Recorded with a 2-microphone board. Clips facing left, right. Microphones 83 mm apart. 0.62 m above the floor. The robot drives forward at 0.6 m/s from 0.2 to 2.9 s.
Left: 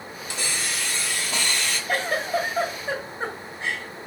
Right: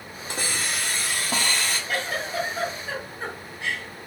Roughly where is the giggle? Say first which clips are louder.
Left 7 dB; left.